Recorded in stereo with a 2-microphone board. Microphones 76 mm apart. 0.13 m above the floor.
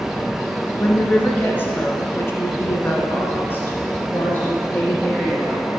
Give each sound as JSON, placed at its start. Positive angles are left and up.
{"t": 0.8, "sound": "a woman speaking", "side_deg": 20, "distance_m": 1.5}